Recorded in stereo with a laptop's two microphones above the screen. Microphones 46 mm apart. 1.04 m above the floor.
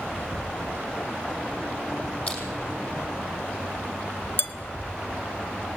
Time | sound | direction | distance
2.3 | crushing | 35° left (ahead or behind) | 6 m
4.4 | dishes clattering | 55° left (ahead or behind) | 1.0 m